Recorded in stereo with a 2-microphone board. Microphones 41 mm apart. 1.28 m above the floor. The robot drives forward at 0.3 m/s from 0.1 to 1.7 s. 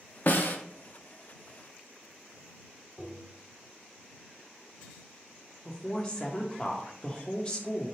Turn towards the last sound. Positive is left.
turn(degrees=25)  # may be behind; listen again after turning